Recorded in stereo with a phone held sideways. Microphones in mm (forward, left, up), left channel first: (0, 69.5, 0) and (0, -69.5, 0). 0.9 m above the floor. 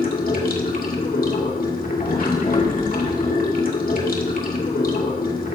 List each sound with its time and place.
0.0 s running water: 80° left, 2.5 m